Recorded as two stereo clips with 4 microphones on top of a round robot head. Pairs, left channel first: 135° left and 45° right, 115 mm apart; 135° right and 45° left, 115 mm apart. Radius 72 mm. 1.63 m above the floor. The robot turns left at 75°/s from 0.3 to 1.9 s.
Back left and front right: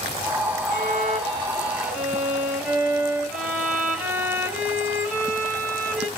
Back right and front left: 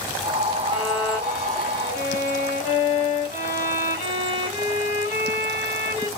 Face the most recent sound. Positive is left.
turn(degrees=-120)